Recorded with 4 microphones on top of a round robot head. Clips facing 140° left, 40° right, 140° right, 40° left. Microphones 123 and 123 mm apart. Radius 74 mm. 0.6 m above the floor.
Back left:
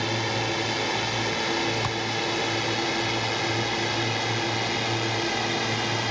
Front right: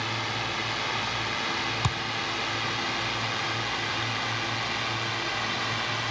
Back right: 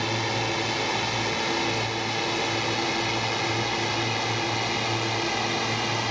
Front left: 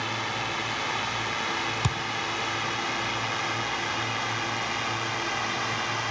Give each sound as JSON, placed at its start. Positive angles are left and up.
{"t": 0.0, "sound": "a drone", "azimuth_deg": 170}
{"t": 1.8, "sound": "a thud", "azimuth_deg": 35}